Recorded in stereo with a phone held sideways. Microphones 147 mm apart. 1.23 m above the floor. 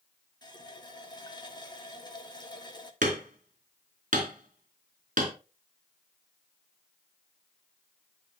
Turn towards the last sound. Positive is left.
turn(degrees=-60)  # may be behind; listen again after turning